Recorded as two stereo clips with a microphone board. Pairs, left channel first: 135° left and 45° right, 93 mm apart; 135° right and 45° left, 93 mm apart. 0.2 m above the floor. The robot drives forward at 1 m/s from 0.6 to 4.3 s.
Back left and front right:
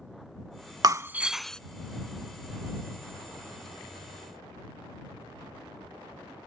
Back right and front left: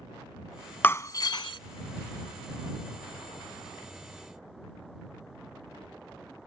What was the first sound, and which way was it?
Breaking glass, 70° right.